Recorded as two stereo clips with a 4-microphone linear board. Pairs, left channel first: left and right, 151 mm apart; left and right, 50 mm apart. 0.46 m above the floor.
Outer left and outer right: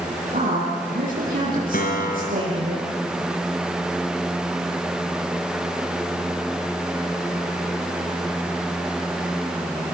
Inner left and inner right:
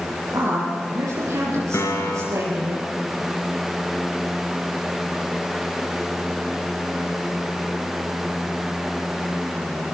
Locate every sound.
0.3 s a woman speaking: 75° right (ahead or behind), 8 m
1.7 s a piano: 80° left, 3.5 m